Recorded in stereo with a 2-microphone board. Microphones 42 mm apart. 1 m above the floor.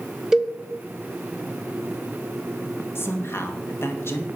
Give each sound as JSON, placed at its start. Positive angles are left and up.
{"t": 0.3, "sound": "a cowbell", "side_deg": -10, "distance_m": 1.1}
{"t": 3.0, "sound": "a man speaking", "side_deg": 65, "distance_m": 1.8}